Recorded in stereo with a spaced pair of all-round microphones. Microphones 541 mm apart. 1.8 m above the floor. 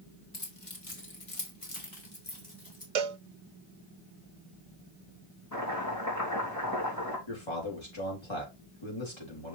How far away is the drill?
No drill in this recording.